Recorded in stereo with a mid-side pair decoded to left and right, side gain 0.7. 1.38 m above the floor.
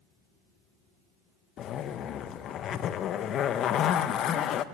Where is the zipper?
45° left, 1.0 m.